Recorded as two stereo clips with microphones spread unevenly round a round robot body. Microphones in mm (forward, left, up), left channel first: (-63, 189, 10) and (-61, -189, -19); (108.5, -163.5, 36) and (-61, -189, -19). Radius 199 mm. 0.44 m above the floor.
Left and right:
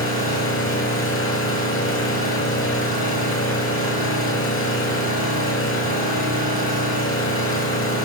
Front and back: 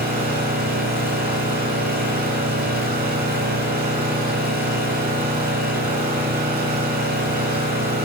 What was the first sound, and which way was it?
An engine running, 145° left.